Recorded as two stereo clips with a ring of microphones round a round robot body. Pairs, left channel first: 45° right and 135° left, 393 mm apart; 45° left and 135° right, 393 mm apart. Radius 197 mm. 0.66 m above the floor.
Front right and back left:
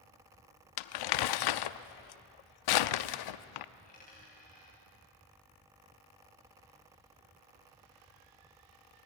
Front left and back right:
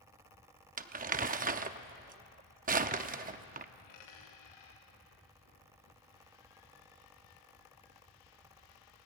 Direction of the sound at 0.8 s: 65° right.